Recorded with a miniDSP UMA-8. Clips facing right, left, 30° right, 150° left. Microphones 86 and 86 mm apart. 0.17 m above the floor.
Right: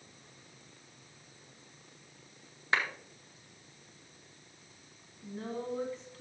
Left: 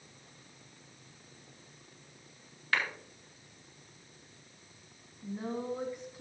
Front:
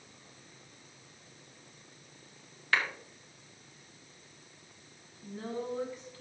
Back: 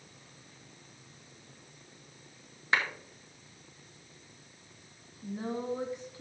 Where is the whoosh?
I don't hear a whoosh.